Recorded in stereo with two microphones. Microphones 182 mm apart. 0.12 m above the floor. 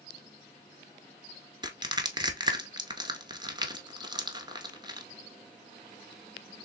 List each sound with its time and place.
1.6 s crushing: 25° right (ahead or behind), 0.8 m